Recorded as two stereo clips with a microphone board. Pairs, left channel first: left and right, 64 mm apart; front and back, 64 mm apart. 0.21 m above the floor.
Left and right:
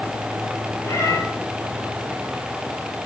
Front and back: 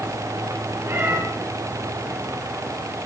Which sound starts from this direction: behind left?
A cat meowing, at 0.8 s.